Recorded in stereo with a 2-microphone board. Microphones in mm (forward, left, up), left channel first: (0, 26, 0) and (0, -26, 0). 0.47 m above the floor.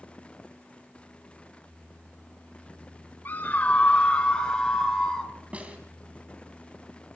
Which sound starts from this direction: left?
A scream, at 3.2 s.